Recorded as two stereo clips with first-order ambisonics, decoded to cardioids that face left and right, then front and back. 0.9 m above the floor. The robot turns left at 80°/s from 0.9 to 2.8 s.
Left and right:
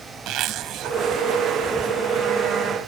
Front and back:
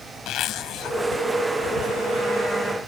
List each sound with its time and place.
0.3 s a zipper: 45° right; by 1.0 s 55° right